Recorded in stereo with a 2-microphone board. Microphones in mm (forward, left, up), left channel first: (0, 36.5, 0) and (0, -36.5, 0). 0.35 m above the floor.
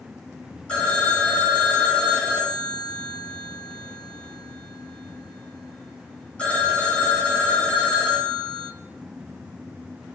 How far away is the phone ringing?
About 1.2 m.